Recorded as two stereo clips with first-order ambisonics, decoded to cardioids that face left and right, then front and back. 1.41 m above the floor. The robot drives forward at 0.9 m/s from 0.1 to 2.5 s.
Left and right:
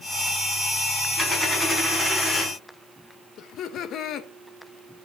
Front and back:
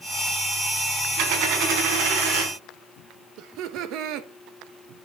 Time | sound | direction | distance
1.2 | a dropped coin | 170° left | 4 m
3.4 | laughter | 145° left | 1.3 m